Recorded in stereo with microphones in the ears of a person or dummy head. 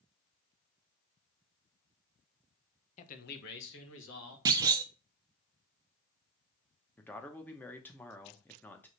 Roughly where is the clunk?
Right.